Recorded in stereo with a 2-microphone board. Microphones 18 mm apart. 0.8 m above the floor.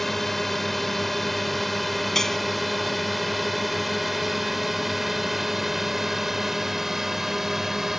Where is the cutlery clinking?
25° left (ahead or behind).